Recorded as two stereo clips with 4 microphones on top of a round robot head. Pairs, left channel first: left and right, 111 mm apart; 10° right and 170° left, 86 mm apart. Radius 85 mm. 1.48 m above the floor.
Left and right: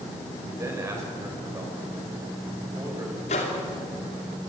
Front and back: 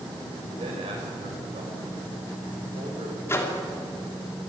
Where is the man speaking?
155° right, 6.5 m.